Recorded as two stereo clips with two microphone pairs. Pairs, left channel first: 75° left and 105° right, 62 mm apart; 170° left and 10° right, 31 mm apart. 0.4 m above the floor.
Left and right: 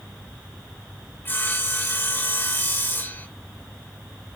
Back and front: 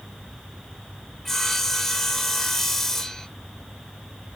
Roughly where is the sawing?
Left.